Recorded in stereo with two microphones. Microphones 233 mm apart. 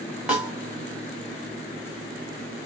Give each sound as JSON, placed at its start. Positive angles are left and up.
{"t": 0.3, "sound": "a snare drum", "side_deg": -5, "distance_m": 1.4}